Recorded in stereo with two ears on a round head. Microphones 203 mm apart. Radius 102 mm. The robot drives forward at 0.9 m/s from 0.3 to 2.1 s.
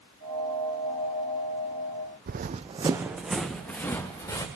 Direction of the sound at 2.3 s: 45° right (ahead or behind).